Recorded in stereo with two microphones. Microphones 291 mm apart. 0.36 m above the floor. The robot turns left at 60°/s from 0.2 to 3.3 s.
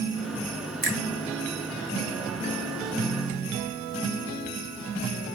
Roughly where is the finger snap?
Right.